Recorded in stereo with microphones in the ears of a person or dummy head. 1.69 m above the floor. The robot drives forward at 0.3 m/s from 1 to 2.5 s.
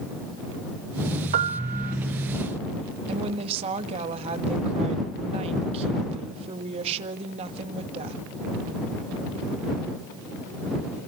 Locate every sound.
1.3 s a piano: 50° right (ahead or behind), 1.7 m; by 2.0 s 55° right (ahead or behind), 1.6 m
3.1 s a woman speaking: 35° right (ahead or behind), 2 m